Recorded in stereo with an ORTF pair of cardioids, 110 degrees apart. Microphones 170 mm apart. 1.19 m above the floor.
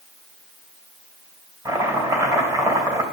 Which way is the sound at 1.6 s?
20° right.